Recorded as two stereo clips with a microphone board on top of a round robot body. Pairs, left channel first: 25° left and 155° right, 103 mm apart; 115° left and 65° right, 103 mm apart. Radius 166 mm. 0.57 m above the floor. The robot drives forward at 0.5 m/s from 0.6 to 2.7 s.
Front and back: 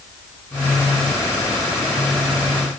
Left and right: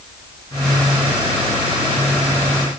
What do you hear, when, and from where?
Only background noise.